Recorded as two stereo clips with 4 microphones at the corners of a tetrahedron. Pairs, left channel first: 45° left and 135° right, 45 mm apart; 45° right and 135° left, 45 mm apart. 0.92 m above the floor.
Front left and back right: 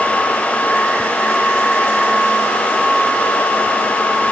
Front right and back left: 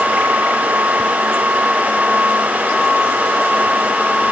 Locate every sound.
Only background noise.